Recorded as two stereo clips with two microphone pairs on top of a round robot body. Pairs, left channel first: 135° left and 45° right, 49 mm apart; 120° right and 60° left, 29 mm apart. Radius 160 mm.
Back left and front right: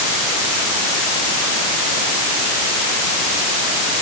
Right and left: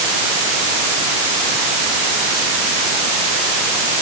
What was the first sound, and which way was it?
Only background noise.